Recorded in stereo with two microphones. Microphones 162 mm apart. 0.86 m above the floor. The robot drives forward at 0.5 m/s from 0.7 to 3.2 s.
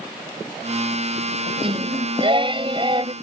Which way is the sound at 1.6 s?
35° right (ahead or behind).